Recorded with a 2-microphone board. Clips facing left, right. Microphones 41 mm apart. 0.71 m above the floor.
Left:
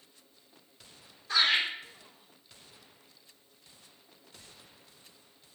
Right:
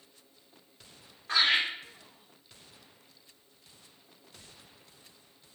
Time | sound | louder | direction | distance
1.3 | laughter | right 1 dB | 50° right (ahead or behind) | 1.7 m